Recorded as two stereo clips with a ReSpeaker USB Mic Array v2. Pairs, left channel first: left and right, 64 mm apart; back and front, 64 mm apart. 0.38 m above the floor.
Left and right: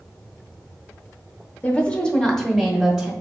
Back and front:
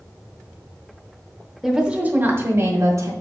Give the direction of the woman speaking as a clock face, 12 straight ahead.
9 o'clock.